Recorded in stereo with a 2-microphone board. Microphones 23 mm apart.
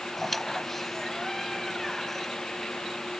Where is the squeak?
5° left (ahead or behind).